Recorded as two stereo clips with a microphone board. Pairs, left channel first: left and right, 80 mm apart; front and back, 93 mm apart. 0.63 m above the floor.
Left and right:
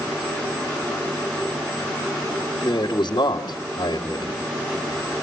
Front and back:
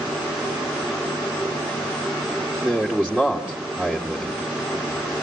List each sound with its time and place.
2.6 s a man speaking: 100° left, 2 m